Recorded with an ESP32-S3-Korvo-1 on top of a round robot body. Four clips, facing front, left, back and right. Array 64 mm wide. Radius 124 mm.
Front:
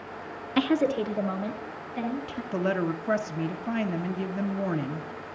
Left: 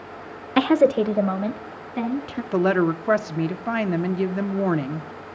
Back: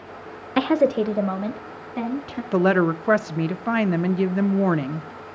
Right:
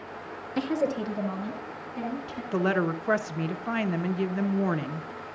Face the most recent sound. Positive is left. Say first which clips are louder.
# left 6 dB, back 9 dB
turn(degrees=160)